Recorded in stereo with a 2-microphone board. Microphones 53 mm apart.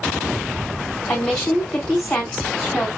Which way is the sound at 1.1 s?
30° left (ahead or behind).